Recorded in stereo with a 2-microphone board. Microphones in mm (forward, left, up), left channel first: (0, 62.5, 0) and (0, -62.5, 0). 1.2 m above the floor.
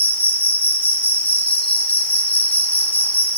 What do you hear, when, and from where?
0.0 s an insect: 10° left (ahead or behind), 3 m